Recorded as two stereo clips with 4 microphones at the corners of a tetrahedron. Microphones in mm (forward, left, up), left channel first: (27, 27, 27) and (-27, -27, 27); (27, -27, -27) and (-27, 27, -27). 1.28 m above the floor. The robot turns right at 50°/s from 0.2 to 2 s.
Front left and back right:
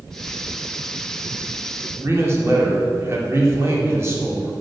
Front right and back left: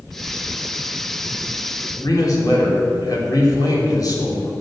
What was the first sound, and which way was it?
A man speaking, 80° right.